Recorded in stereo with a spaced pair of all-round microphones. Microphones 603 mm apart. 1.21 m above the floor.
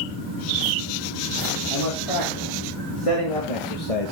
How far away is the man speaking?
About 4 m.